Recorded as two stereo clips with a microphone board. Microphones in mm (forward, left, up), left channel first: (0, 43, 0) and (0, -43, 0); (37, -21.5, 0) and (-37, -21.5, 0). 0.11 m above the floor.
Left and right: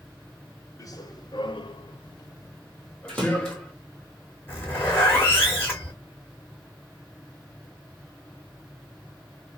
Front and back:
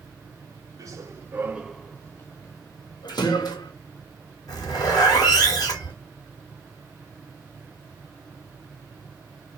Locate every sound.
0.8 s running footsteps: 140° left, 1.0 m; by 3.7 s 10° left, 1.6 m
3.1 s a splash: 5° left, 1.3 m
4.5 s a zipper: 25° left, 2.0 m